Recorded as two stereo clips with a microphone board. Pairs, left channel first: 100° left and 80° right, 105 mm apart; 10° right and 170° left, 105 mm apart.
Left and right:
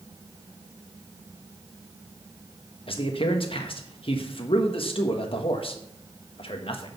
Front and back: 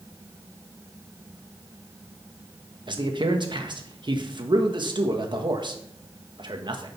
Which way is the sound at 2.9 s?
130° left.